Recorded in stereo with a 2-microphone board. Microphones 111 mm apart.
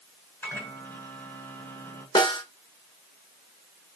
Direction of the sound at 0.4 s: 15° left (ahead or behind).